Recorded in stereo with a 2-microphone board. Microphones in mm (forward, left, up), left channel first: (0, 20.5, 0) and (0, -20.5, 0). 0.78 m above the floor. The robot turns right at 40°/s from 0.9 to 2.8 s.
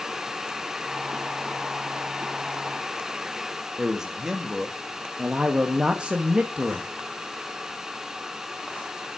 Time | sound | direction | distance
3.8 | a man speaking | 10° right (ahead or behind) | 1.1 m
5.2 | a man speaking | 25° right (ahead or behind) | 1.0 m